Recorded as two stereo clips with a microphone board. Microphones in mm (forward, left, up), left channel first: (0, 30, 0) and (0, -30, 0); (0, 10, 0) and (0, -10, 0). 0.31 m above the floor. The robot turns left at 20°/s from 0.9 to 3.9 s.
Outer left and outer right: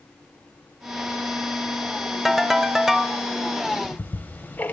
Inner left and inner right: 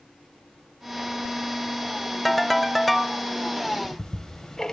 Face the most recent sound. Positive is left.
turn(degrees=30)  # may be behind; listen again after turning